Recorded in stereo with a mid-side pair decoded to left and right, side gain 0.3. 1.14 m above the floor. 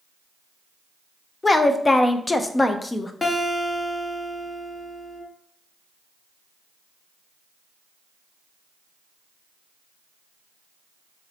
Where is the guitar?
40° left, 1.1 m.